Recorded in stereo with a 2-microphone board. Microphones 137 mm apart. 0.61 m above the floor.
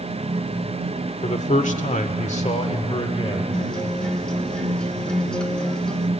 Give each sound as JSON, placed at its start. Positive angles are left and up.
{"t": 1.2, "sound": "a man speaking", "side_deg": 55, "distance_m": 1.7}
{"t": 3.5, "sound": "a guitar", "side_deg": 5, "distance_m": 1.3}